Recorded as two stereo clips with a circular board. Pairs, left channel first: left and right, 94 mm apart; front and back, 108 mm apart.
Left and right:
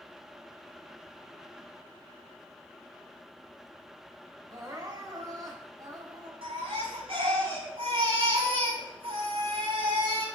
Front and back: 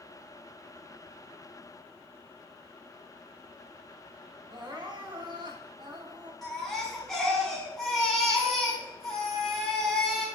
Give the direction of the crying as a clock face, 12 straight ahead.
5 o'clock.